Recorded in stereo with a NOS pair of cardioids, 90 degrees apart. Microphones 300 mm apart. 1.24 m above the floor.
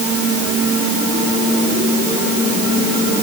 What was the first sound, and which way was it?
Only background noise.